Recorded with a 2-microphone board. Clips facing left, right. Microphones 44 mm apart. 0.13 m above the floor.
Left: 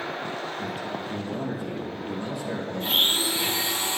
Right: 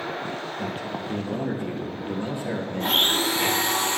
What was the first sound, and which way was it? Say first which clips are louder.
A man speaking: right 1 dB; 45° right (ahead or behind).